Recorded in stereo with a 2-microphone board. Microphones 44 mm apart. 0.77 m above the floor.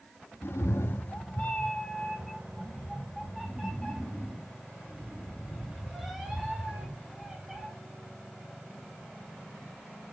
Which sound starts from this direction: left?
A cat meowing, at 0.4 s.